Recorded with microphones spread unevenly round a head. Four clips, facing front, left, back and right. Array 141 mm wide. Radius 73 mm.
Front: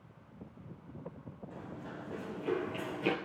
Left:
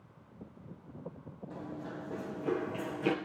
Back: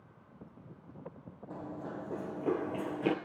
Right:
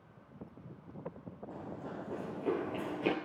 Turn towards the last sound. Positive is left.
turn(degrees=-150)